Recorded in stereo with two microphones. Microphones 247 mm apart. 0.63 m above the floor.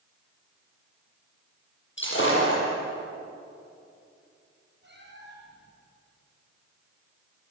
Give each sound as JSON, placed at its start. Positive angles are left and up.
{"t": 2.0, "sound": "breaking glass", "side_deg": 50, "distance_m": 9.5}
{"t": 4.8, "sound": "a cat meowing", "side_deg": -45, "distance_m": 9.5}